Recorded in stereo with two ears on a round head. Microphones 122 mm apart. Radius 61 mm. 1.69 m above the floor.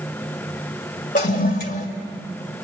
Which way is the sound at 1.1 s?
70° left (ahead or behind).